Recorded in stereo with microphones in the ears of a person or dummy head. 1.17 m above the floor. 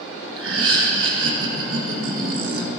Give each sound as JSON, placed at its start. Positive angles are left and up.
{"t": 0.4, "sound": "laughter", "side_deg": -75, "distance_m": 1.6}